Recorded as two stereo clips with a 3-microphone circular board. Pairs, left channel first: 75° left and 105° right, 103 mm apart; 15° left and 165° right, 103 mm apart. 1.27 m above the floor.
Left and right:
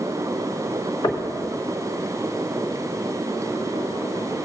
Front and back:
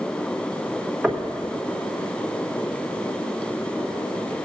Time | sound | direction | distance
1.0 | knocking | 110° left | 1.3 m